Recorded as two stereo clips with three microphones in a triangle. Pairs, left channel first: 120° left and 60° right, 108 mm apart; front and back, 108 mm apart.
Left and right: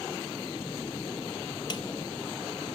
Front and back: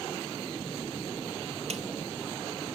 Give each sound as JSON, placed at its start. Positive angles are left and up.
{"t": 1.7, "sound": "a snare drum", "azimuth_deg": 165, "distance_m": 1.1}